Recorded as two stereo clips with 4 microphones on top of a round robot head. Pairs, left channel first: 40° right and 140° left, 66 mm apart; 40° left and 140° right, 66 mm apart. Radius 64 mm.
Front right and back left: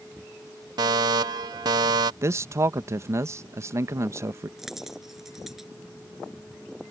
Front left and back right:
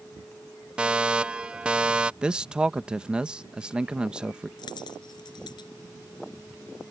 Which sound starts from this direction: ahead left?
A dropped coin, at 4.6 s.